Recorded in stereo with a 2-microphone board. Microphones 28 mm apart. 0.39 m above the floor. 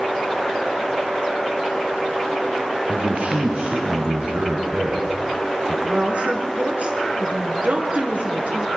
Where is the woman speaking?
65° right (ahead or behind), 4.5 m.